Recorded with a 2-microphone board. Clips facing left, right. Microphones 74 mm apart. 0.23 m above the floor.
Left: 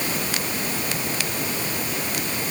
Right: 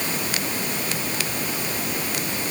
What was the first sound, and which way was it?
Only background noise.